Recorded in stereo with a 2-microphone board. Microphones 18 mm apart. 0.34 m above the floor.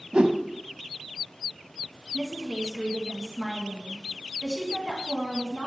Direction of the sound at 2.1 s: 25° right (ahead or behind).